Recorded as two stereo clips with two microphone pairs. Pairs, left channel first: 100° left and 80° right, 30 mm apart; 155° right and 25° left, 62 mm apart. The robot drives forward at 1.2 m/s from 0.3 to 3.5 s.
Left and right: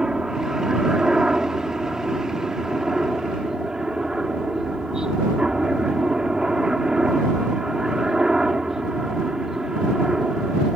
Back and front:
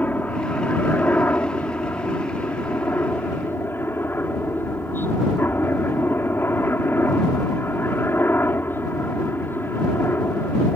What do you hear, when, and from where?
0.0 s a helicopter: 125° right; by 10.8 s 135° right